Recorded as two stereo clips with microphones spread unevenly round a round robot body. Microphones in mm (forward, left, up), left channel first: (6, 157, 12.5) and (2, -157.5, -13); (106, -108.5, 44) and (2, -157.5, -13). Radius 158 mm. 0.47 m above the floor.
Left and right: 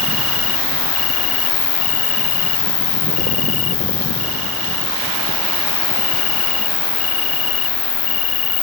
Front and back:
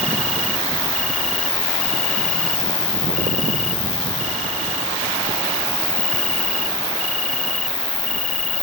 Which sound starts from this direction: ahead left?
An insect, at 0.0 s.